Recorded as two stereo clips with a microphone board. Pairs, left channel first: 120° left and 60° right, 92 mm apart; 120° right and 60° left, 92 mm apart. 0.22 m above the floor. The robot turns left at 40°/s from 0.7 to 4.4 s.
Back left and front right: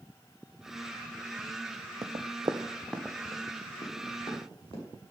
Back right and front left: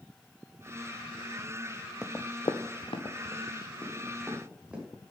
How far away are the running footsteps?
About 0.7 m.